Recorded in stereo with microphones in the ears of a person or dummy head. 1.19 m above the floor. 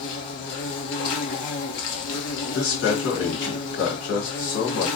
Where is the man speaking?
75° left (ahead or behind), 1.5 m.